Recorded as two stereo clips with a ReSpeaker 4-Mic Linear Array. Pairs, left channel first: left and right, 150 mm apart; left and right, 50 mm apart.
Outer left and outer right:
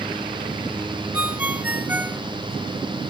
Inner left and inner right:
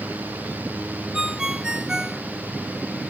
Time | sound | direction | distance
1.1 | a ringtone | 10° right (ahead or behind) | ?